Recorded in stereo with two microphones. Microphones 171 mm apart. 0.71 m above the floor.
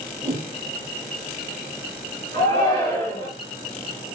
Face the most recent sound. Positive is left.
turn(degrees=30)  # may be behind; listen again after turning